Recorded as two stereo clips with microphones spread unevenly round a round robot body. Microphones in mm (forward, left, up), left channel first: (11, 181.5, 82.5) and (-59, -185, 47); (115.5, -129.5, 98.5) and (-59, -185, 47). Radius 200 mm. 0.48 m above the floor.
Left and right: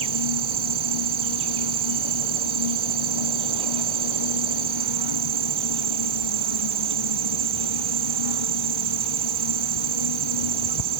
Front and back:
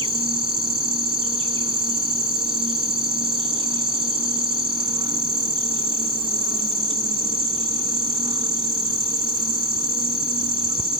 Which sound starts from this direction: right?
An insect, at 0.0 s.